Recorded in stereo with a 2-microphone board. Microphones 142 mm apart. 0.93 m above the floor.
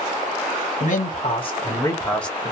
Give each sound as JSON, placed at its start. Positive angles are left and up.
{"t": 0.8, "sound": "a man speaking", "side_deg": 65, "distance_m": 0.8}